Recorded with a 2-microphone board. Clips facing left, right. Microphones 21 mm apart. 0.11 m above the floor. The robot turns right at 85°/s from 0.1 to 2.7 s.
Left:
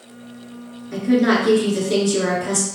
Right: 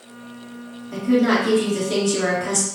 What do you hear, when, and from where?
0.9 s a woman speaking: 80° left, 1.6 m; by 2.6 s 135° right, 1.6 m